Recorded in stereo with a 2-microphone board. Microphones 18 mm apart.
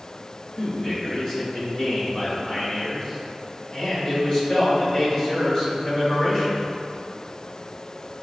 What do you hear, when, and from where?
0.6 s a man speaking: 40° left (ahead or behind), 1.2 m